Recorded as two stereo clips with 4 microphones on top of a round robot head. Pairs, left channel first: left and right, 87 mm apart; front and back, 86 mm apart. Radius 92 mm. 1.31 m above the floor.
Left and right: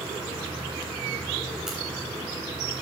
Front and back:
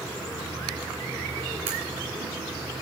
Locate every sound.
1.7 s a crack: 175° right, 2.5 m